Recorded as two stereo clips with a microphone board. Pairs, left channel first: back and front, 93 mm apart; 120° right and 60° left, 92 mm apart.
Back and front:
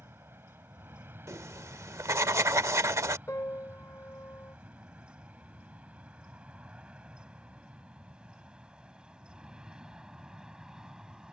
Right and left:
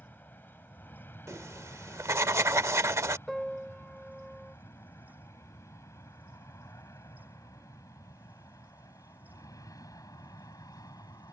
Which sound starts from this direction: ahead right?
An aircraft, at 0.0 s.